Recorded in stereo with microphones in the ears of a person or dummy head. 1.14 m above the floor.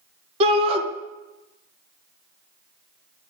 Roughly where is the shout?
Right.